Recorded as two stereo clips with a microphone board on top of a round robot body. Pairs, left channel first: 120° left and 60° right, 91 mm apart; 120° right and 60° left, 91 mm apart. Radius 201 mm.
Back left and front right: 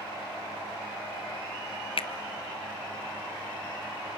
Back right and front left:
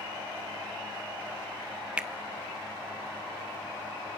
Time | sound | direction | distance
2.0 | a finger snap | 135° left | 0.8 m